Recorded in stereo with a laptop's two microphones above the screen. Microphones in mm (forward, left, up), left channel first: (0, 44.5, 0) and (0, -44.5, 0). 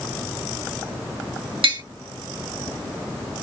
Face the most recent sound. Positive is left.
turn(degrees=-80)